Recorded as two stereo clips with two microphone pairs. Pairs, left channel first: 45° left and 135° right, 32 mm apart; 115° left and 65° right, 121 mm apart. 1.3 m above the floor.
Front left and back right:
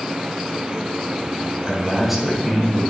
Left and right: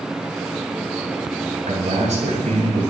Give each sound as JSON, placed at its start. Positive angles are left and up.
{"t": 1.6, "sound": "a man speaking", "azimuth_deg": -55, "distance_m": 7.5}